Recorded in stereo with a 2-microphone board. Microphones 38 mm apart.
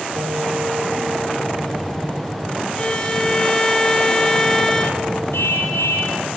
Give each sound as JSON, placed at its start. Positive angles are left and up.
{"t": 0.1, "sound": "a piano", "side_deg": -50, "distance_m": 5.5}
{"t": 2.8, "sound": "a violin", "side_deg": 20, "distance_m": 3.5}
{"t": 5.3, "sound": "a car horn", "side_deg": 80, "distance_m": 8.0}